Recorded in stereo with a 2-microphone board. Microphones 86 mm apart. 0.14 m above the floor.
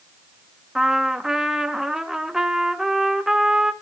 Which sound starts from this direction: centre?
A trumpet, at 0.8 s.